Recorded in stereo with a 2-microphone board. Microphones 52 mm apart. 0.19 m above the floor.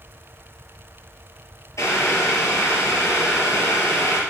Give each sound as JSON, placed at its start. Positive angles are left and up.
{"t": 1.8, "sound": "boiling", "side_deg": 75, "distance_m": 2.5}